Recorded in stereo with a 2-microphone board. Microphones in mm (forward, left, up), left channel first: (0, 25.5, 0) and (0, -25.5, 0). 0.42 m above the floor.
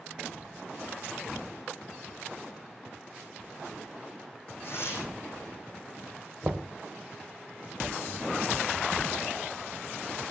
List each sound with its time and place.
4.6 s tearing paper: 55° left (ahead or behind), 6 m
6.4 s knocking: 40° right (ahead or behind), 1.2 m